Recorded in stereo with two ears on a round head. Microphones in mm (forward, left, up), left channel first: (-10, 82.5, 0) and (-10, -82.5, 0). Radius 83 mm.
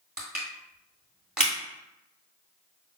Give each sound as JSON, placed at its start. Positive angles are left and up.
{"t": 0.2, "sound": "crushing", "side_deg": -5, "distance_m": 2.0}